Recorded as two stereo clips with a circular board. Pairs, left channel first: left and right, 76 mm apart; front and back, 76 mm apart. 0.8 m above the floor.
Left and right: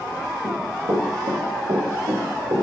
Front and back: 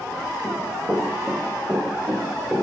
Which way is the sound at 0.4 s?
105° right.